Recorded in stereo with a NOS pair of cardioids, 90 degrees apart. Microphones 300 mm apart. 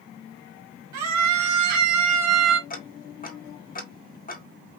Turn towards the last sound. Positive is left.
turn(degrees=30)